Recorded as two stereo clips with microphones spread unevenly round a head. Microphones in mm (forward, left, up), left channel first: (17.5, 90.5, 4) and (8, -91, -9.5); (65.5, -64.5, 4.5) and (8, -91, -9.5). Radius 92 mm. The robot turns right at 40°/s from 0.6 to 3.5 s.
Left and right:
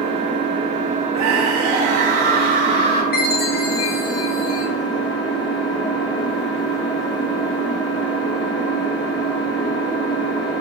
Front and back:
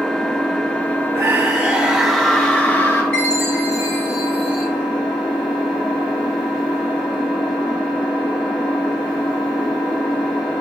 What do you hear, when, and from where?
0.0 s an engine running: 60° right, 1.2 m; by 10.6 s 55° left, 1.2 m
1.1 s a scream: 110° right, 0.9 m; by 3.0 s 35° right, 0.9 m
3.1 s a chime: 80° left, 1.2 m; by 4.7 s 95° left, 1.2 m